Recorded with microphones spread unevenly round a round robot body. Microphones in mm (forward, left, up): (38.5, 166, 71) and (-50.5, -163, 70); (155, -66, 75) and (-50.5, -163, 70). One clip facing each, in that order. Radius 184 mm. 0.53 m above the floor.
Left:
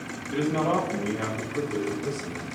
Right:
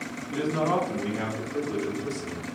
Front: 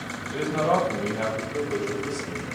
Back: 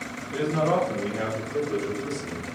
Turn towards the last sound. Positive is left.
turn(degrees=-85)